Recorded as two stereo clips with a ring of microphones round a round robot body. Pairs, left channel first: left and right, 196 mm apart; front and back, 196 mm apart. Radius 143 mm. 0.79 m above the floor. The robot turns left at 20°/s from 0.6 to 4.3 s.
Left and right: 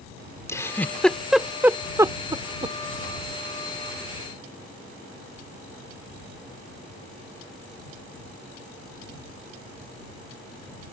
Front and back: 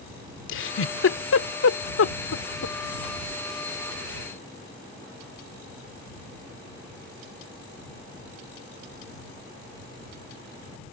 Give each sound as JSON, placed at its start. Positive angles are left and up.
{"t": 0.5, "sound": "a giggle", "azimuth_deg": 15}